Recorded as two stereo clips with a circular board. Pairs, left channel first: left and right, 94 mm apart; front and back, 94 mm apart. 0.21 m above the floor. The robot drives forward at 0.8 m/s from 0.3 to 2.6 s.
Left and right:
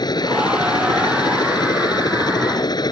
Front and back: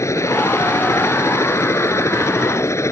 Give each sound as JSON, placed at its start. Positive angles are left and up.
{"t": 0.0, "sound": "a helicopter", "azimuth_deg": 55}